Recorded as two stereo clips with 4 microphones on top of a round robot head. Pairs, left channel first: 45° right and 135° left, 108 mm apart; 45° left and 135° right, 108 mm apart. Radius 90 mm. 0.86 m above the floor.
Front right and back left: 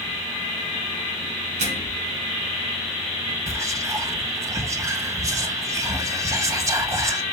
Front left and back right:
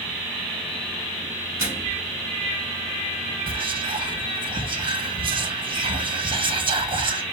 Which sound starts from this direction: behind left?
A microwave, at 1.6 s.